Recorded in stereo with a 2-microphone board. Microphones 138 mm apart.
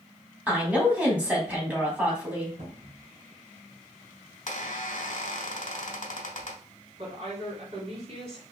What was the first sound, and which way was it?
A woman speaking, 10° right (ahead or behind).